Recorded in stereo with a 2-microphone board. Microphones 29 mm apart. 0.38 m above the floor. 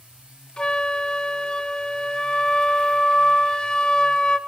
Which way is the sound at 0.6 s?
25° left (ahead or behind).